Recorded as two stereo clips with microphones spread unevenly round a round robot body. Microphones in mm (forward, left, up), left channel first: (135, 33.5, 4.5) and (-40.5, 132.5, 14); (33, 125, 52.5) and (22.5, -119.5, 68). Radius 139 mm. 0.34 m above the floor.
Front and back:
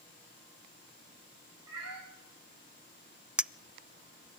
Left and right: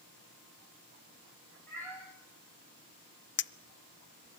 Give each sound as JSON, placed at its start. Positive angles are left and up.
{"t": 1.7, "sound": "a cat meowing", "azimuth_deg": 170, "distance_m": 6.5}
{"t": 3.4, "sound": "a clink", "azimuth_deg": 65, "distance_m": 0.6}